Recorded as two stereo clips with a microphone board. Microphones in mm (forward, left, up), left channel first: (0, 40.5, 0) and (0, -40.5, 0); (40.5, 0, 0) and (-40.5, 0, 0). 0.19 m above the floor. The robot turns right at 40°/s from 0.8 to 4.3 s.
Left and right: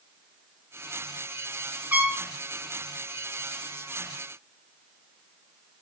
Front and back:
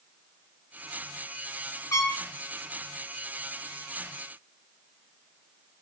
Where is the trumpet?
25° right, 2.5 m; by 2.2 s 10° right, 2.5 m.